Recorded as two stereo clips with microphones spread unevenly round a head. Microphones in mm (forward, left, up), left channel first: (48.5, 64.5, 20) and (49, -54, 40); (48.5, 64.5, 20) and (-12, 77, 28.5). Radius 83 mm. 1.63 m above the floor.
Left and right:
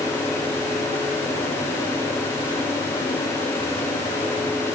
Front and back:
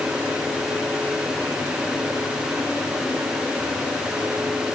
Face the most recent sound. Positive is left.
No sound to turn to.